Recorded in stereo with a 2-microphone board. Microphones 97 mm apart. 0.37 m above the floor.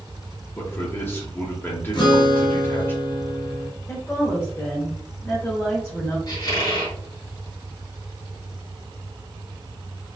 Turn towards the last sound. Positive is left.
turn(degrees=45)  # may be behind; listen again after turning